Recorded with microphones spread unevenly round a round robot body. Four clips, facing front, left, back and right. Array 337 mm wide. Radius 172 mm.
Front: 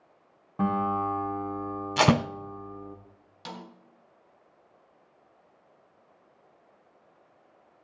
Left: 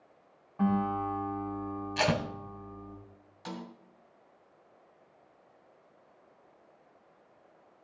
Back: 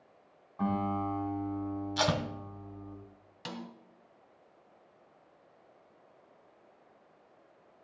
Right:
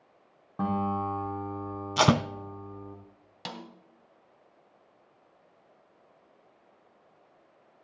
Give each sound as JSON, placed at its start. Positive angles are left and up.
{"t": 0.6, "sound": "a guitar", "azimuth_deg": -40, "distance_m": 7.0}
{"t": 2.0, "sound": "tape being pulled", "azimuth_deg": -40, "distance_m": 0.6}
{"t": 3.5, "sound": "a snare drum", "azimuth_deg": -100, "distance_m": 3.0}